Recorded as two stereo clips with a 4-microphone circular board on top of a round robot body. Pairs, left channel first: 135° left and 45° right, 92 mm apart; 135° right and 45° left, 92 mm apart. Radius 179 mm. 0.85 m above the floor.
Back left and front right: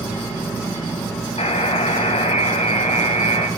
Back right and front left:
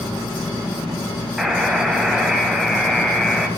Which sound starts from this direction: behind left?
A buzzer, at 1.4 s.